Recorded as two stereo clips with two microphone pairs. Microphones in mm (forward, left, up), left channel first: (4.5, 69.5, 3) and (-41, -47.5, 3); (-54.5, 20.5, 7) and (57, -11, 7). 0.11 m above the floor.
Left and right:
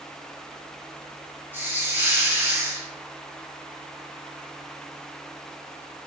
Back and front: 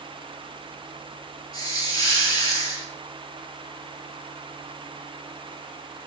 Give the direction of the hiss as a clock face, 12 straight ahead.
6 o'clock.